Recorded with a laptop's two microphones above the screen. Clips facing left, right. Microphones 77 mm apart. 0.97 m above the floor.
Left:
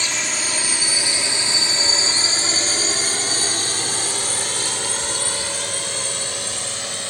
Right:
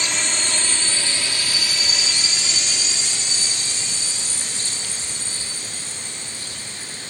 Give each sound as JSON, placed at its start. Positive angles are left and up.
{"t": 0.0, "sound": "a drone", "side_deg": 0}